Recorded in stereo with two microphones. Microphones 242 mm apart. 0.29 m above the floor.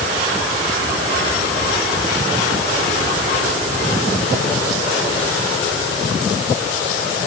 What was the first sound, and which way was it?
Only background noise.